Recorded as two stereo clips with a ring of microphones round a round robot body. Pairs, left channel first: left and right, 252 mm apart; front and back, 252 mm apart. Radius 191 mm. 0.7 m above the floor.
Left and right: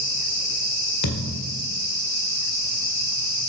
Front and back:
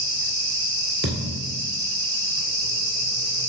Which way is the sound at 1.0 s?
125° left.